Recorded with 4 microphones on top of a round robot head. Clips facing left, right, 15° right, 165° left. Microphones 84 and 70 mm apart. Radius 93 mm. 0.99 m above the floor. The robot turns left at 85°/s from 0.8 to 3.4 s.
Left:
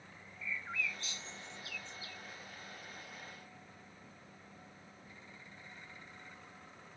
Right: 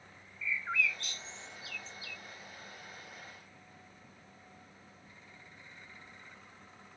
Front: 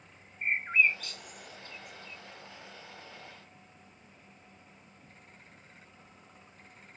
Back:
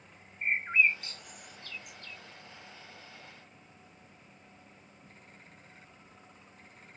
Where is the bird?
110° right; by 2.2 s 135° left.